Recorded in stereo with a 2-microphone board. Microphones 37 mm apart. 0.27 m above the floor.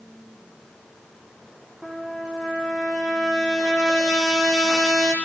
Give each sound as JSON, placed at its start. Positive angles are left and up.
{"t": 1.8, "sound": "a trumpet", "side_deg": -15, "distance_m": 8.5}